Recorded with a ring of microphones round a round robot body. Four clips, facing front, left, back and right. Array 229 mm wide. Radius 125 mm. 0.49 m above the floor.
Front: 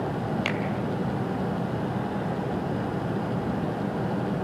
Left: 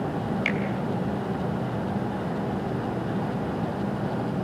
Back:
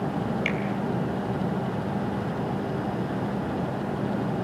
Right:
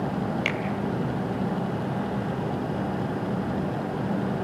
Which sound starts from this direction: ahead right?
A finger snap, at 0.5 s.